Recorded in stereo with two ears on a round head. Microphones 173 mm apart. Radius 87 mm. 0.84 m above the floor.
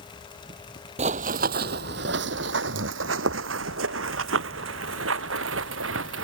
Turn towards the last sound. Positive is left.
turn(degrees=-75)  # may be behind; listen again after turning